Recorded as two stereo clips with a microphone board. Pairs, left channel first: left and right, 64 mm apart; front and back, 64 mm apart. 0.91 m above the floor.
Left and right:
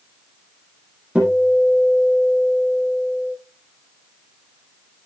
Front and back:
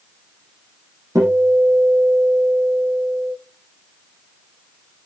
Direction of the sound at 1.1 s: 160° right.